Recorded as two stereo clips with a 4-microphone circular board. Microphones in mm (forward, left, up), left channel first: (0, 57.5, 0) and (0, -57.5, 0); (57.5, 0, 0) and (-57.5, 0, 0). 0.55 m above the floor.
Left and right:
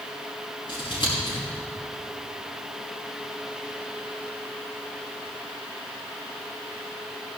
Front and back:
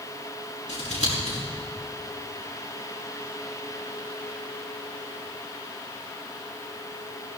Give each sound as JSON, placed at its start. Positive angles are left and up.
{"t": 0.7, "sound": "scissors", "azimuth_deg": 135, "distance_m": 5.5}